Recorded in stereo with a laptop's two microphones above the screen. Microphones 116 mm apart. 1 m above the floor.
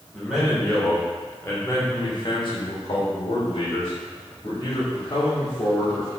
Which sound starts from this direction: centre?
A man speaking, at 0.1 s.